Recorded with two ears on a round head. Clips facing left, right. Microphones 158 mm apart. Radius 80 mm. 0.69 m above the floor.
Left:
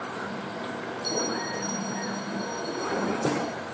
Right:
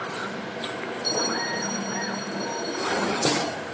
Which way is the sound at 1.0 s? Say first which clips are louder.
Right 1 dB; 5° right (ahead or behind).